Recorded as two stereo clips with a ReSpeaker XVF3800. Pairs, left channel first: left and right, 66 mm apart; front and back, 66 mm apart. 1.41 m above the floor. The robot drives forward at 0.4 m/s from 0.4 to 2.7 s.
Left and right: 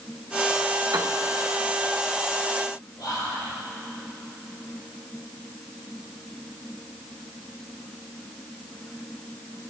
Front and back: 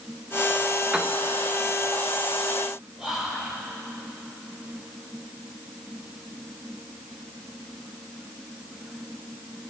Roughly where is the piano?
Right.